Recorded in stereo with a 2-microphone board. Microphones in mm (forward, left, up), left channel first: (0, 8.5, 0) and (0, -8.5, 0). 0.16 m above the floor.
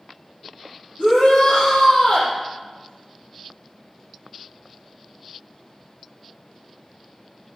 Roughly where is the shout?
Left.